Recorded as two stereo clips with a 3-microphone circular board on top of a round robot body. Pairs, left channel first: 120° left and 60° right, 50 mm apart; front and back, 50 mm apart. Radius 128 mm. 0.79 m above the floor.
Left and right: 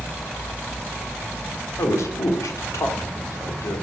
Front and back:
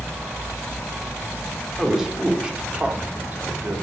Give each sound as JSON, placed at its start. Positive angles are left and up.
{"t": 1.8, "sound": "a man speaking", "azimuth_deg": 95, "distance_m": 2.0}